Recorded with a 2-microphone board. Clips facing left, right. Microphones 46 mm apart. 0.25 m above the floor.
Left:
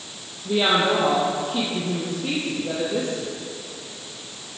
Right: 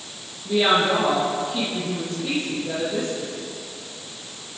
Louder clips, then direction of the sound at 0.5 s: Right 1 dB; 20° left (ahead or behind).